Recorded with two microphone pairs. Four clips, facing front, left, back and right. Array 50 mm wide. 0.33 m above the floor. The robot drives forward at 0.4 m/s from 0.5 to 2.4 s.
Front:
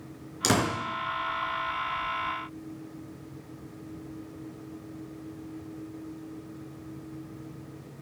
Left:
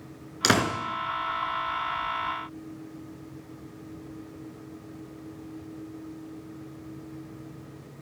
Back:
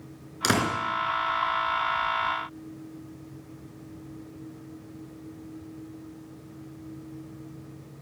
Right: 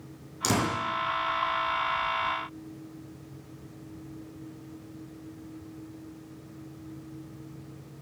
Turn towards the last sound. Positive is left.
turn(degrees=120)